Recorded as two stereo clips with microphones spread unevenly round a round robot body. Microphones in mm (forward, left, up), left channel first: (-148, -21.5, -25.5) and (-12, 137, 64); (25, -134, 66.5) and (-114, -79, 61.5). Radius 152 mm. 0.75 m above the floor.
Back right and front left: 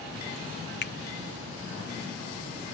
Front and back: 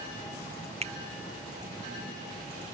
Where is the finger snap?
155° right.